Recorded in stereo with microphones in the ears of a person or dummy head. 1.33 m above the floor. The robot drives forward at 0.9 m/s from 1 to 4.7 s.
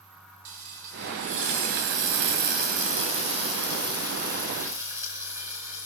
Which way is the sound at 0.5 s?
35° right (ahead or behind).